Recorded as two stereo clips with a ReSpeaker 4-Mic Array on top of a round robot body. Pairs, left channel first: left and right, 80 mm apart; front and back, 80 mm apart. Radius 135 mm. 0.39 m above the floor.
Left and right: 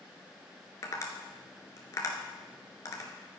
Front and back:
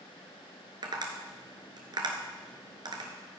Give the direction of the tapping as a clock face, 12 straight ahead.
7 o'clock.